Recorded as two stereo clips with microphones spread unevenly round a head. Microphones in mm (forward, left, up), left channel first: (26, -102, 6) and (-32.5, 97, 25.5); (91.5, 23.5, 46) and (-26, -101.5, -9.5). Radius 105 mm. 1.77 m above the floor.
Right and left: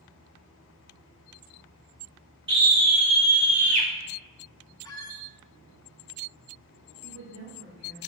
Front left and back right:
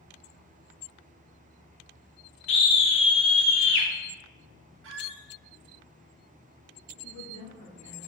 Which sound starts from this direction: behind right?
A squeak, at 4.8 s.